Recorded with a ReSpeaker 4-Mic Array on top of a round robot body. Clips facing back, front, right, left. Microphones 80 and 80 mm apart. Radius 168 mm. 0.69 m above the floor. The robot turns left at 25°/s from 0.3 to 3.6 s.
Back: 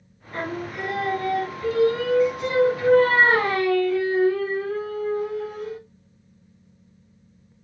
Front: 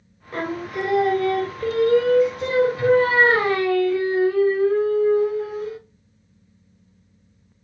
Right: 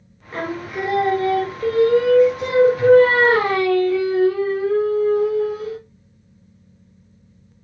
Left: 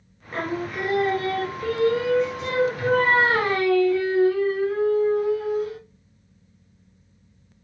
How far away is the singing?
About 1.5 m.